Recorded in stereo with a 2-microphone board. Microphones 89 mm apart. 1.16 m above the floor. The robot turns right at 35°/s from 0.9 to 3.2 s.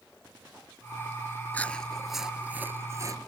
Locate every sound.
1.5 s chewing: 160° left; by 3.2 s 140° right